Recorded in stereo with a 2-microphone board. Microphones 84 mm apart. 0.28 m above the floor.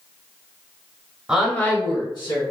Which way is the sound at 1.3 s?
10° right (ahead or behind).